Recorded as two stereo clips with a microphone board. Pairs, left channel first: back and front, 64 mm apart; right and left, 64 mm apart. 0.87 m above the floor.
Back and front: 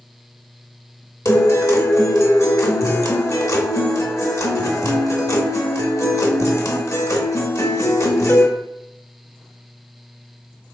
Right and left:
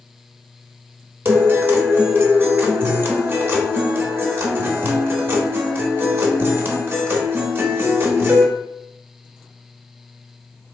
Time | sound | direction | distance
1.2 | a guitar | 140° left | 0.9 m